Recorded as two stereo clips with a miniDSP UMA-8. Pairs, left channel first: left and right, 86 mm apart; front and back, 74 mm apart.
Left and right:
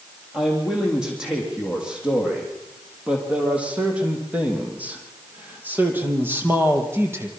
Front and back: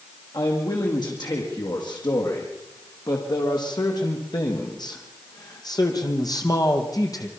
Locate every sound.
0.3 s a man speaking: 5° right, 7.5 m; by 7.3 s 30° right, 4.5 m